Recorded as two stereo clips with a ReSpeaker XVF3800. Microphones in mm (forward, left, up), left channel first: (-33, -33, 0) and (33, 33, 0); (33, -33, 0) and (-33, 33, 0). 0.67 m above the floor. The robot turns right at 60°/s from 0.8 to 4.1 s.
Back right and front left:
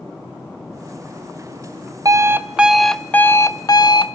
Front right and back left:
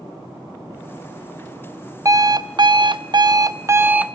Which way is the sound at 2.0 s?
90° left.